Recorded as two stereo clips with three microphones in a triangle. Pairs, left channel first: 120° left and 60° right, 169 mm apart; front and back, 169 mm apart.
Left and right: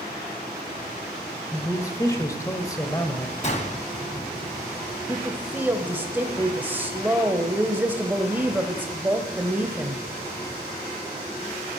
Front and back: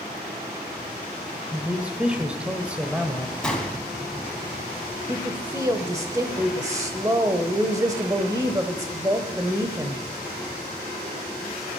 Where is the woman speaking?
125° right, 1.1 m.